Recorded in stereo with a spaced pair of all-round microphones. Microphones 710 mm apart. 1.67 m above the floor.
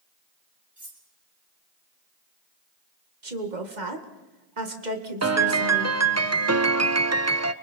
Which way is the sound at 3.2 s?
90° right.